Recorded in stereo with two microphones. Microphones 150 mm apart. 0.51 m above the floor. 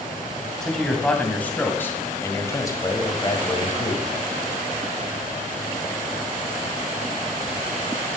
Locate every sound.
0.6 s a man speaking: 5° left (ahead or behind), 3 m; by 4.1 s 40° left (ahead or behind), 2 m